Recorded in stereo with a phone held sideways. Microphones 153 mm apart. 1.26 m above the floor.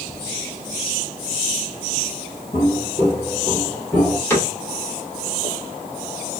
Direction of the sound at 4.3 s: 15° left (ahead or behind).